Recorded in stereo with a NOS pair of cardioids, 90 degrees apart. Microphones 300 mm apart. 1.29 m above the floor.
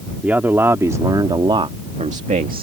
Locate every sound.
0.2 s a man speaking: 5° right; by 2.6 s 30° right